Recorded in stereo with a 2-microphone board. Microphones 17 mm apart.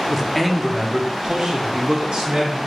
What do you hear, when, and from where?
0.1 s a man speaking: 15° left (ahead or behind), 0.8 m; by 2.6 s 65° right (ahead or behind), 1.4 m